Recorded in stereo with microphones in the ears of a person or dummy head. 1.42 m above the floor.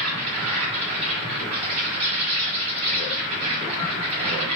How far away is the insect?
About 1.6 m.